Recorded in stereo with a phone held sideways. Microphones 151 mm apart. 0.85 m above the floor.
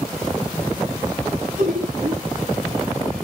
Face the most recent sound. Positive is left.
turn(degrees=-65)  # may be behind; listen again after turning